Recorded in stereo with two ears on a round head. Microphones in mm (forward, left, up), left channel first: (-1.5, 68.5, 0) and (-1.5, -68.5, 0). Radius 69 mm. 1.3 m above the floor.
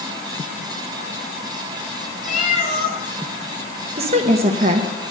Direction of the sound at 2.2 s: 50° left (ahead or behind).